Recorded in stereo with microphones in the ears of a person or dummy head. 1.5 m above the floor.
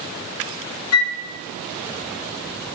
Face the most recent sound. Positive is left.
turn(degrees=80)